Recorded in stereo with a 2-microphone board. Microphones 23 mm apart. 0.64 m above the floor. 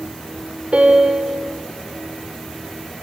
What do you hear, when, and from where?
0.7 s a piano: 60° right (ahead or behind), 2.5 m